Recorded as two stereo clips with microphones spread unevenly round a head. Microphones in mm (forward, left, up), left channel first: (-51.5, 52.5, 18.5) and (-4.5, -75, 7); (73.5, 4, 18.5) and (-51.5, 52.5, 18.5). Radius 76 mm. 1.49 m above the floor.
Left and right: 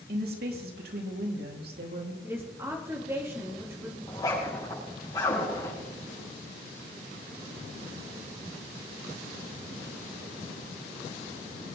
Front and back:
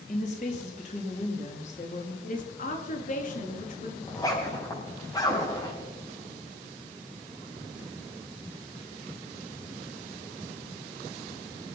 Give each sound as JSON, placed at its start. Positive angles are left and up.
{"t": 0.1, "sound": "a woman speaking", "azimuth_deg": -65, "distance_m": 3.5}
{"t": 2.2, "sound": "a woman speaking", "azimuth_deg": 5, "distance_m": 3.0}
{"t": 4.1, "sound": "a zipper", "azimuth_deg": 45, "distance_m": 7.0}